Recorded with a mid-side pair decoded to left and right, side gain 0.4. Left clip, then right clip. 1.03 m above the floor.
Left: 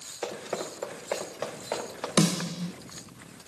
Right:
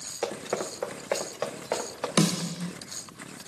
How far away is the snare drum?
About 0.9 m.